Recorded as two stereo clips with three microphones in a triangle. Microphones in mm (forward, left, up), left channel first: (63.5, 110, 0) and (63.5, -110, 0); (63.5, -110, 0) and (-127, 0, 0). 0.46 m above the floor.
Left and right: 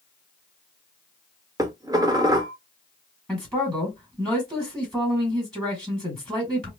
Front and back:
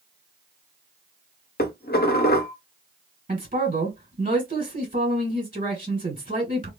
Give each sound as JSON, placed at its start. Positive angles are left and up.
{"t": 1.6, "sound": "dishes clattering", "azimuth_deg": -20, "distance_m": 0.6}
{"t": 3.3, "sound": "a man speaking", "azimuth_deg": 175, "distance_m": 1.7}